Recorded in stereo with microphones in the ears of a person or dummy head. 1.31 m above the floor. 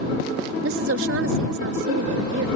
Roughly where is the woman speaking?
Right.